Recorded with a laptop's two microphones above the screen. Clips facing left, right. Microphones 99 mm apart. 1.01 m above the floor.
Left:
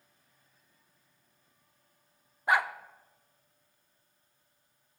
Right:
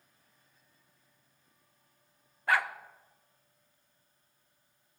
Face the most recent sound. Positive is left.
turn(degrees=20)  # may be behind; listen again after turning